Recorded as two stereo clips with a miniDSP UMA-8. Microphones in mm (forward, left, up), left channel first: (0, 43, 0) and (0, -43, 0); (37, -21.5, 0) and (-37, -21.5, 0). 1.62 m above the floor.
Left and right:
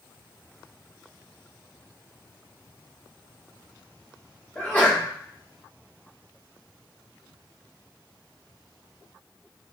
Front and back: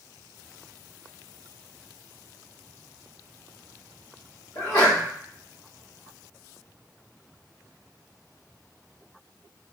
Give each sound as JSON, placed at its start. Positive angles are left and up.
{"t": 4.5, "sound": "a sneeze", "azimuth_deg": 20, "distance_m": 1.5}